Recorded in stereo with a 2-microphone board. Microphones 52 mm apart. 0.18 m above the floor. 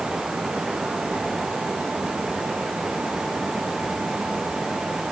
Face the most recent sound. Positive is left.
No sound to turn to.